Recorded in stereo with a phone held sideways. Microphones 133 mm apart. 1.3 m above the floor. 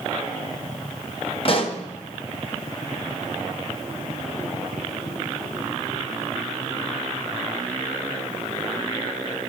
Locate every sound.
1.4 s a pop: 45° left (ahead or behind), 0.8 m